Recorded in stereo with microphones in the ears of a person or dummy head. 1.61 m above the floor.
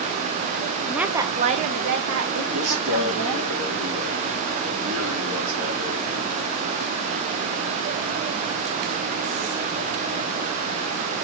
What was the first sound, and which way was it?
A woman speaking, centre (ahead or behind).